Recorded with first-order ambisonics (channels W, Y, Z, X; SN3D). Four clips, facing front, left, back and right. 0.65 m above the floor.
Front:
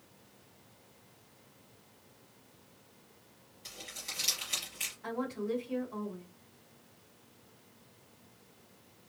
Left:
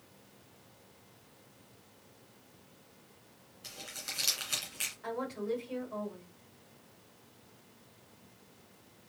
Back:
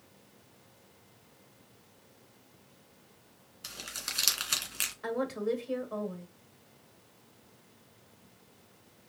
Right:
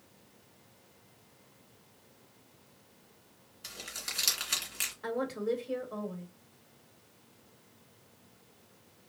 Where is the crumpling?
160° right, 2.5 m.